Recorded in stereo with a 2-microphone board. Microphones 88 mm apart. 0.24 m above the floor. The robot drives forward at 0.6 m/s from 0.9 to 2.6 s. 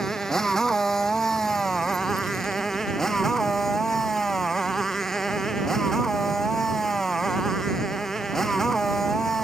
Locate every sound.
0.0 s a motorcycle: 5° left (ahead or behind)